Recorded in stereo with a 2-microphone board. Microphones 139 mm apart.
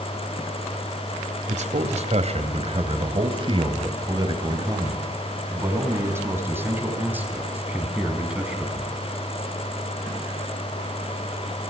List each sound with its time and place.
1.5 s a man speaking: 60° right (ahead or behind), 2.5 m; by 9.0 s 5° right (ahead or behind), 5 m